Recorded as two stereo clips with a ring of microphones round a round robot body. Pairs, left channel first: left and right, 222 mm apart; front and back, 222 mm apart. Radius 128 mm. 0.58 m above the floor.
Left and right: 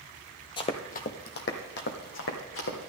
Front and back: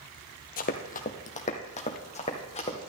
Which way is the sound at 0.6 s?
30° left.